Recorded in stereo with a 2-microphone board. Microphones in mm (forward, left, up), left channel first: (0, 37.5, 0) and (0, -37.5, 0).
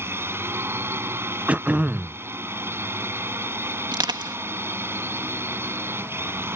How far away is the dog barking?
I don't hear a dog barking.